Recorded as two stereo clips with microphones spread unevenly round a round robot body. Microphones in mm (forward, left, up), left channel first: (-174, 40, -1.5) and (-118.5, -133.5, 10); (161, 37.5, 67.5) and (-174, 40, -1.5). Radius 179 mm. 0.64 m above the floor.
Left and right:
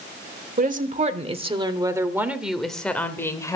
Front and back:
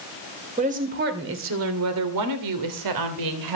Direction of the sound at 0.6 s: 115° right.